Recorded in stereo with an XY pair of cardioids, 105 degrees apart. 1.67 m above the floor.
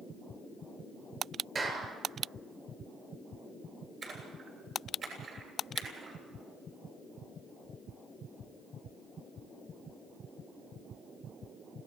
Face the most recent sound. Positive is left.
turn(degrees=-45)